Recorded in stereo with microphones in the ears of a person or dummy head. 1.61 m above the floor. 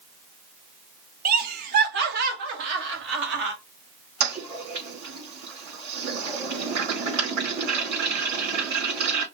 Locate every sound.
1.2 s laughter: 50° right (ahead or behind), 2.0 m; by 3.5 s 60° right (ahead or behind), 4.5 m
4.2 s a toilet flushing: 55° right (ahead or behind), 4.5 m